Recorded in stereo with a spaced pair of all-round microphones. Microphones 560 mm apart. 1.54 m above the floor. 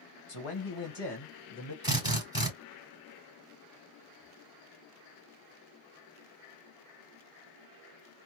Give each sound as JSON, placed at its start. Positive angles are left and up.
{"t": 0.3, "sound": "a man speaking", "side_deg": 65, "distance_m": 1.1}
{"t": 1.8, "sound": "a drill", "side_deg": 10, "distance_m": 3.0}